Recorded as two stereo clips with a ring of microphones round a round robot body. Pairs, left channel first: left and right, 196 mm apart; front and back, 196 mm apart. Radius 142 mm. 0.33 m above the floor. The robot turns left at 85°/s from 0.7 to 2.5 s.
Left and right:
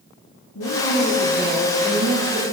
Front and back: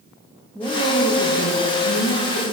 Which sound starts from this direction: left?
A woman speaking, at 0.6 s.